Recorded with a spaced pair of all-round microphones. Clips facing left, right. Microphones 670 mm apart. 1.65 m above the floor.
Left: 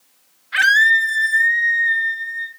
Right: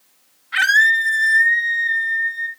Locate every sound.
0.5 s a scream: 10° left (ahead or behind), 0.7 m; by 2.5 s 25° right (ahead or behind), 1.9 m